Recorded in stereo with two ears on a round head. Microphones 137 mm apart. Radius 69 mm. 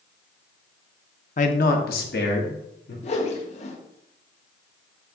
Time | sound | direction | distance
1.4 | a man speaking | 50° left (ahead or behind) | 0.8 m
3.0 | a whoosh | 50° left (ahead or behind) | 1.0 m